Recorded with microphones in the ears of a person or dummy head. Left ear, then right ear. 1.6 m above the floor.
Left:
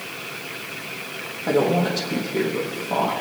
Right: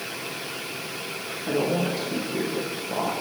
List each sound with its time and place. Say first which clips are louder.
1.5 s a woman speaking: left 5 dB; 70° left (ahead or behind), 1.9 m